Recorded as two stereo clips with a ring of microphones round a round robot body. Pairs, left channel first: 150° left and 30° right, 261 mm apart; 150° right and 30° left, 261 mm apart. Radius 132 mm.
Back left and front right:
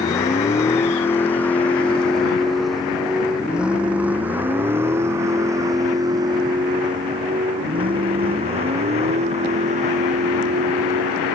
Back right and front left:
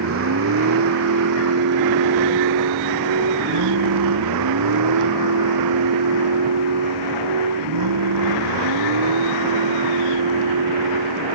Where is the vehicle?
70° left; by 11.3 s 30° left.